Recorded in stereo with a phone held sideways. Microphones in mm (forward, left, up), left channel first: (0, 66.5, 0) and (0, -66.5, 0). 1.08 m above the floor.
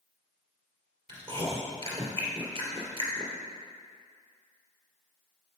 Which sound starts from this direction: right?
Chewing, at 1.1 s.